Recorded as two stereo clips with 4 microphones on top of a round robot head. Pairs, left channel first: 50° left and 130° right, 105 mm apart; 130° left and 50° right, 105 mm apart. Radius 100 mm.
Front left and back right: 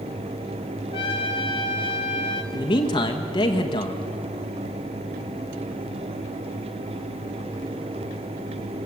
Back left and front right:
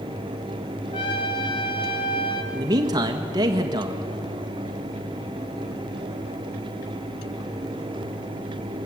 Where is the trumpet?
85° left, 0.9 m.